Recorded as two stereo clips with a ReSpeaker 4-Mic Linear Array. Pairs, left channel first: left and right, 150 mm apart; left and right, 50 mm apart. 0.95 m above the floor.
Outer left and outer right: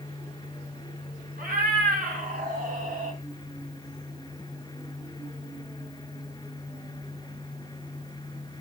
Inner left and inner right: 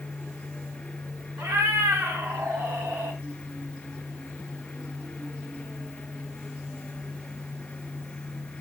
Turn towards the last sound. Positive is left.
turn(degrees=-55)  # may be behind; listen again after turning